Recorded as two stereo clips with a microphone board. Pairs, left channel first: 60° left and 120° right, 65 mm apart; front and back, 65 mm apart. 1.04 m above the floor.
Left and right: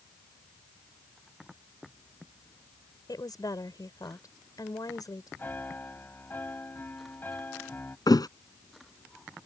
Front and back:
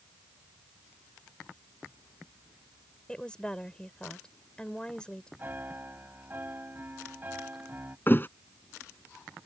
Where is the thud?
60° left.